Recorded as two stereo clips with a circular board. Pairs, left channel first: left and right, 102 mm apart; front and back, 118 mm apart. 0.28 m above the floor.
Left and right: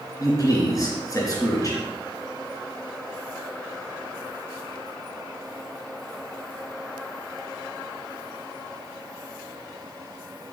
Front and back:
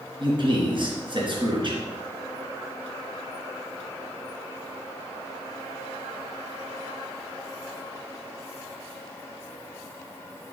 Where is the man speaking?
140° left, 3 m.